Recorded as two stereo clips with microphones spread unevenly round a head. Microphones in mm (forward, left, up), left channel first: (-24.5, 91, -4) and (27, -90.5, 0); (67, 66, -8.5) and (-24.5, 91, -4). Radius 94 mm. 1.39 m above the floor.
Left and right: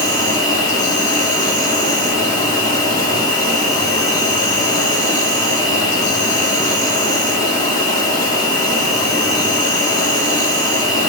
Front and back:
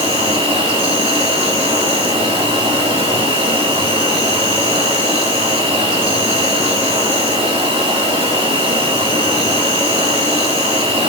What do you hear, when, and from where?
0.0 s an insect: 175° left, 3 m